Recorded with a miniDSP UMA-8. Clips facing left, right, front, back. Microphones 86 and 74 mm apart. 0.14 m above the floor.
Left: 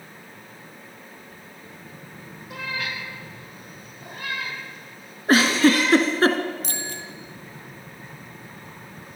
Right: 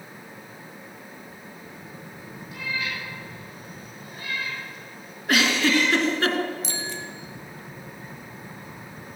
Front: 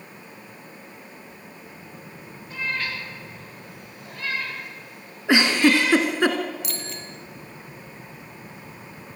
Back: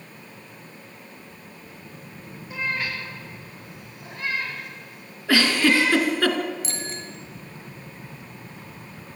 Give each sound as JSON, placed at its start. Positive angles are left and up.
{"t": 2.5, "sound": "a cat meowing", "azimuth_deg": 100, "distance_m": 8.0}
{"t": 5.3, "sound": "a giggle", "azimuth_deg": 60, "distance_m": 1.8}
{"t": 6.6, "sound": "a bicycle bell", "azimuth_deg": 125, "distance_m": 2.5}